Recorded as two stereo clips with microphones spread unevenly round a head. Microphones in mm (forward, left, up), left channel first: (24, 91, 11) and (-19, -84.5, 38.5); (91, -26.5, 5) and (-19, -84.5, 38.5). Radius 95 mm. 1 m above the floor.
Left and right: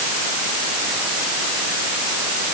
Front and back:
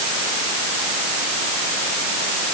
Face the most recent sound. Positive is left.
No sound to turn to.